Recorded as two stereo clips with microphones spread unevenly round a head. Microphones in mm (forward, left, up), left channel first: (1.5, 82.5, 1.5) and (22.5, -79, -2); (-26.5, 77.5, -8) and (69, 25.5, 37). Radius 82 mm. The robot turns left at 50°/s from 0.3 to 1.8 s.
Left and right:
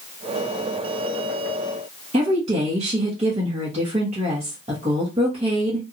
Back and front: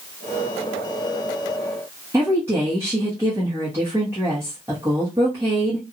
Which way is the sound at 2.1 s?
115° right.